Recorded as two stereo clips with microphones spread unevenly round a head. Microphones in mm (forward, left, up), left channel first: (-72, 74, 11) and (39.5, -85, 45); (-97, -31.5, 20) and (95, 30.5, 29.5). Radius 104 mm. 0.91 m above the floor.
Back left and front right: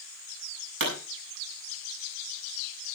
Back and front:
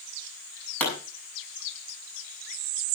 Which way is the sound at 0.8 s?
80° right.